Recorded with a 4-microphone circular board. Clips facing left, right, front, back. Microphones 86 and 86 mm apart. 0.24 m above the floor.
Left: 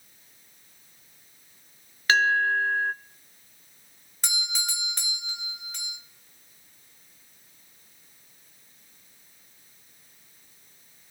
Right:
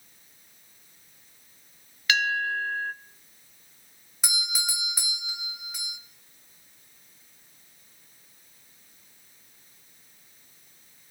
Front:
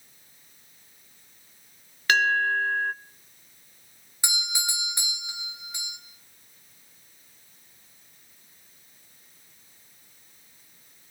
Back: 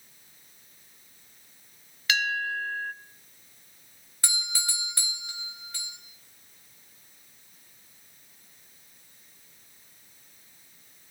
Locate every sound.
2.1 s a bell: 40° left, 0.6 m
4.2 s a doorbell: 25° right, 2 m